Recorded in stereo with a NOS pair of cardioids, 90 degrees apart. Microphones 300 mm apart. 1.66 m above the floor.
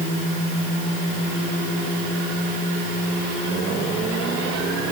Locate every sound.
Only background noise.